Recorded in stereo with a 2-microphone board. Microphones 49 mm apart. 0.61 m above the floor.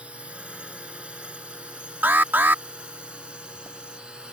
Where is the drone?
20° right (ahead or behind).